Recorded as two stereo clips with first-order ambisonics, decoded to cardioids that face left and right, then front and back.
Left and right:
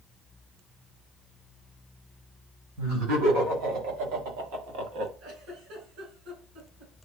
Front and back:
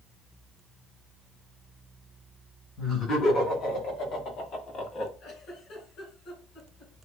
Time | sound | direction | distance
2.8 | laughter | 60° right | 4 m
5.2 | a giggle | 55° right | 4 m